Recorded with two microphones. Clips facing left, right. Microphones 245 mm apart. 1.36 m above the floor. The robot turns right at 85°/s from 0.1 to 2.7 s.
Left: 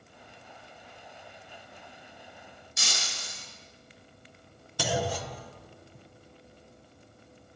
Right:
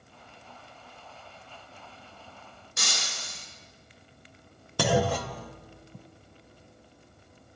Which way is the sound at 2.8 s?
65° right (ahead or behind).